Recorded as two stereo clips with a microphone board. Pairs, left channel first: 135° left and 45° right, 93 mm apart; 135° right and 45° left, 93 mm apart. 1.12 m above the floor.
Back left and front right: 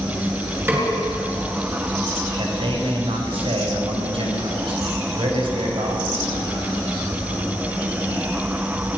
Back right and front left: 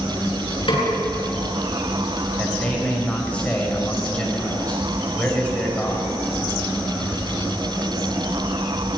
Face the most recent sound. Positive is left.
turn(degrees=-60)